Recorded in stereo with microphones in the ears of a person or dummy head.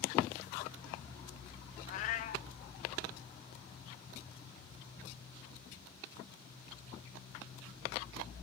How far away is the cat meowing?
About 0.6 m.